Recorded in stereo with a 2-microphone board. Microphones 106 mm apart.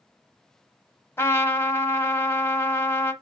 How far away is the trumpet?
About 0.9 m.